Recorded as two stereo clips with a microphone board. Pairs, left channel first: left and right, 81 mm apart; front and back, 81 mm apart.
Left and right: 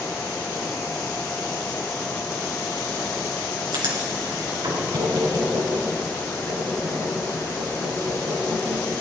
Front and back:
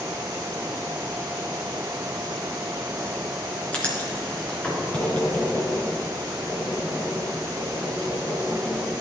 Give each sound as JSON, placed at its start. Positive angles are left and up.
{"t": 3.7, "sound": "writing", "azimuth_deg": -75, "distance_m": 3.5}